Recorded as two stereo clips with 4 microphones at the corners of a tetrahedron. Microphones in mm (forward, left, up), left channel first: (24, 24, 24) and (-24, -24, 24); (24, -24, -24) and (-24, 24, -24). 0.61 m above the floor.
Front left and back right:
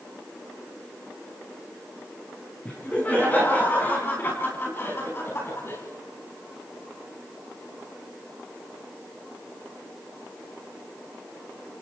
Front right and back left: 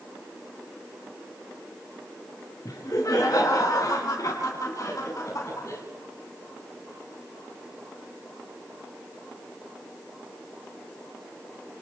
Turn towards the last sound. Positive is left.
turn(degrees=-5)